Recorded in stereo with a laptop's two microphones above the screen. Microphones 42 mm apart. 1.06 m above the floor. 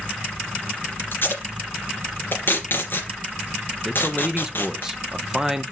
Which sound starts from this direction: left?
Tape being pulled, at 1.1 s.